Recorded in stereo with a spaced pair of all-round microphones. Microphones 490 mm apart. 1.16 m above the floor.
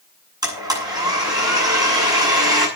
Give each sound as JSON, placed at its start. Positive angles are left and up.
{"t": 0.4, "sound": "a blender", "side_deg": -10, "distance_m": 8.0}